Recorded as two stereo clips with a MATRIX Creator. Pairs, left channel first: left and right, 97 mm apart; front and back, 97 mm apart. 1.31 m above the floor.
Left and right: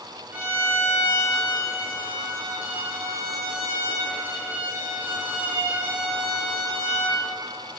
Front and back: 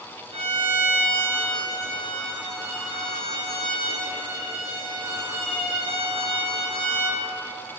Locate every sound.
0.3 s a violin: 165° right, 2 m